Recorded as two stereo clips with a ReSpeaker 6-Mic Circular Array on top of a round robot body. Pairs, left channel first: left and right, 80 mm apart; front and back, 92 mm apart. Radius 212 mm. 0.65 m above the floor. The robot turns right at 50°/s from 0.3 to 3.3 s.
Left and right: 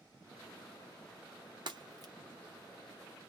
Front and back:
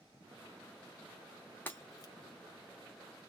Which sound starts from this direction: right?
Breaking glass, at 1.7 s.